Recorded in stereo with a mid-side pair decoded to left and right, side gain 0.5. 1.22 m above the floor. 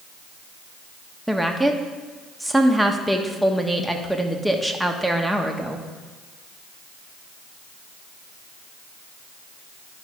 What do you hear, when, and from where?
1.3 s a woman speaking: straight ahead, 1.2 m